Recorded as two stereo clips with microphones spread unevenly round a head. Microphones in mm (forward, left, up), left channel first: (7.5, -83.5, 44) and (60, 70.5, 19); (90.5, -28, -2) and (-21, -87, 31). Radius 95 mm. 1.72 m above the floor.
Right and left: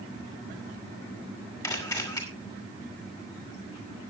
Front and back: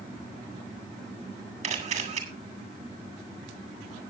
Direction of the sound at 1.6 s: 175° right.